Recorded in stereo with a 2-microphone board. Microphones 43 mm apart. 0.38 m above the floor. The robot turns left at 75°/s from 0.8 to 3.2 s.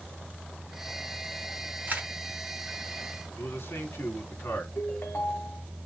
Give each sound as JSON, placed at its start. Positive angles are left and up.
{"t": 1.9, "sound": "a camera shutter", "side_deg": -45, "distance_m": 2.5}
{"t": 3.4, "sound": "a man speaking", "side_deg": 70, "distance_m": 3.5}
{"t": 4.8, "sound": "a ringtone", "side_deg": 60, "distance_m": 1.8}